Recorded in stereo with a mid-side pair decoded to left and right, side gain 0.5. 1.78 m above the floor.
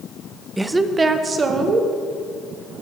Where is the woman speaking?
15° right, 0.7 m; by 1.9 s 45° right, 1.9 m.